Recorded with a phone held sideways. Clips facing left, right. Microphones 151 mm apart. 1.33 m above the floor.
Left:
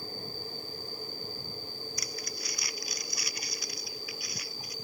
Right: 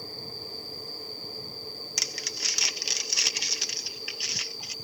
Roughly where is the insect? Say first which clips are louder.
Even; right.